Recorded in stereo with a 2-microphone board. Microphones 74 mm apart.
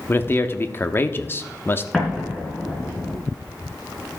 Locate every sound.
0.1 s a man speaking: 30° left (ahead or behind), 0.9 m
1.9 s an explosion: 5° left (ahead or behind), 5 m